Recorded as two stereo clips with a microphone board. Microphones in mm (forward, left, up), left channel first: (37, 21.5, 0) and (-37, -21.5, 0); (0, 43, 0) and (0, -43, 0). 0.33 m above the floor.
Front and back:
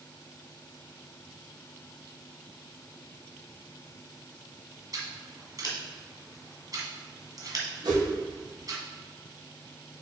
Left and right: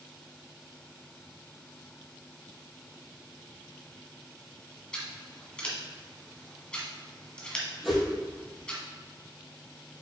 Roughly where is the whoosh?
Behind.